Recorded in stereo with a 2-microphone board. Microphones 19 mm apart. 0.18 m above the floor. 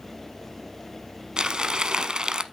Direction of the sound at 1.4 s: 40° right (ahead or behind).